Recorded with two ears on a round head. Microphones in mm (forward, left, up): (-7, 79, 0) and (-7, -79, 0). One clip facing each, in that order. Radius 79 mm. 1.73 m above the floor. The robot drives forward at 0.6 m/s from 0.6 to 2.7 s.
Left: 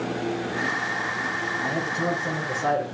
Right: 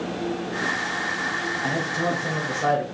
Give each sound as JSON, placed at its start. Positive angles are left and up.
{"t": 1.6, "sound": "a man speaking", "side_deg": -65, "distance_m": 3.5}